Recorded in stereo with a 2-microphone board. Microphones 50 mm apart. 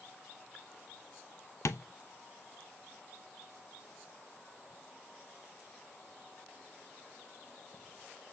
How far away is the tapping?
About 0.5 m.